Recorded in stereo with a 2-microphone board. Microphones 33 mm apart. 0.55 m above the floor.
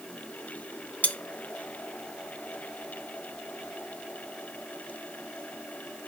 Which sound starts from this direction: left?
Cutlery clinking, at 1.0 s.